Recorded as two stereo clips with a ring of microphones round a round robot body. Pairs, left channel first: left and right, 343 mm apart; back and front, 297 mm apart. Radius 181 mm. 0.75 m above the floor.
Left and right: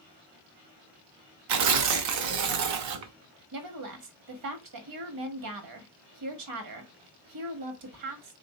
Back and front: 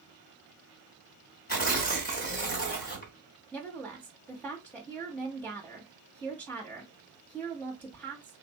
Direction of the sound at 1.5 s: 120° right.